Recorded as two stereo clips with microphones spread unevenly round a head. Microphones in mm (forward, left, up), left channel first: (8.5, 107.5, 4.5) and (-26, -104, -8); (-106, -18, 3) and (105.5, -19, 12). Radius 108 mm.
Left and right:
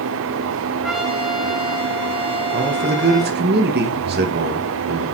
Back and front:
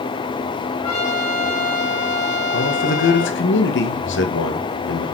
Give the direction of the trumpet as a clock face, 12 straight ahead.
6 o'clock.